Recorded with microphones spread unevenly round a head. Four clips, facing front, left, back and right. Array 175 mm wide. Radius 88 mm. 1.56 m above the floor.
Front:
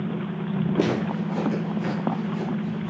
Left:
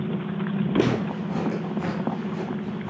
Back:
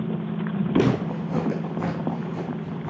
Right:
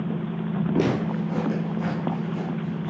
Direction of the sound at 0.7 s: 175° right.